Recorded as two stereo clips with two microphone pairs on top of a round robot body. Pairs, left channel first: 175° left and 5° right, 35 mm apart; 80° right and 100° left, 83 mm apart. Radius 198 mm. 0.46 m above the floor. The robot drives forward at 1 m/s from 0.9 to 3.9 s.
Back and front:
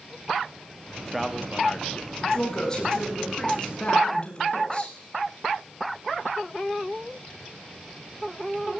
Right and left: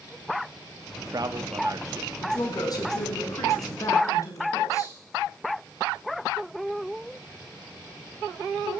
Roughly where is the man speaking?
Left.